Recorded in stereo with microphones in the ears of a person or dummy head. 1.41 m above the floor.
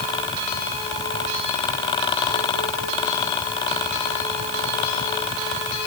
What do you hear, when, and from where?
Only background noise.